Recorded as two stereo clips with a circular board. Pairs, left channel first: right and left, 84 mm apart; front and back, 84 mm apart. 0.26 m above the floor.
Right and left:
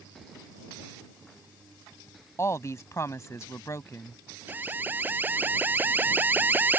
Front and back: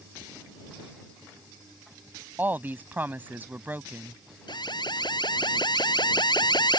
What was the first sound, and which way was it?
A woman speaking, 125° right.